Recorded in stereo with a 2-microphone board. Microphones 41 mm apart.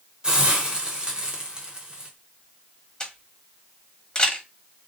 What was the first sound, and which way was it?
A hiss, 20° right (ahead or behind).